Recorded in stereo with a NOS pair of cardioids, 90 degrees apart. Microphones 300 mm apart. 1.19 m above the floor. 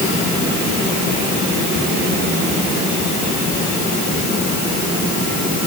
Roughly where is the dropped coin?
No dropped coin in this recording.